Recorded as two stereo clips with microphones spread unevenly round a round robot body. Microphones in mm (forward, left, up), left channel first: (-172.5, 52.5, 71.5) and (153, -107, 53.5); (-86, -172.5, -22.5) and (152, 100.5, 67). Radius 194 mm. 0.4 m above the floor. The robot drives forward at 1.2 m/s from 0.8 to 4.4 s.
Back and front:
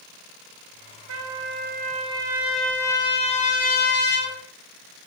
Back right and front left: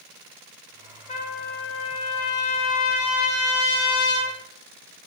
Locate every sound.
1.1 s a trumpet: 65° right, 2.5 m; by 4.3 s 150° right, 3.5 m